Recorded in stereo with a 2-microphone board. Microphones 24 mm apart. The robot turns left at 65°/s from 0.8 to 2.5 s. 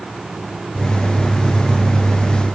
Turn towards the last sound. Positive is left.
No sound to turn to.